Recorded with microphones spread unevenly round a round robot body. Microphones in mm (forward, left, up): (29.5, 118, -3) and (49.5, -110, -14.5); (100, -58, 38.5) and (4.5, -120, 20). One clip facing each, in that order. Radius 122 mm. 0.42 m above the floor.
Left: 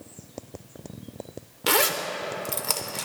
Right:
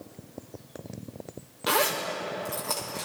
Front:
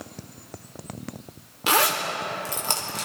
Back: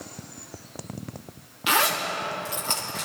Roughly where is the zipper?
Left.